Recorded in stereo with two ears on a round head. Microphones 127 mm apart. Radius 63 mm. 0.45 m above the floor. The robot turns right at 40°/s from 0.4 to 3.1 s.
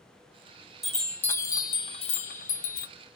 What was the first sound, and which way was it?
A chime, straight ahead.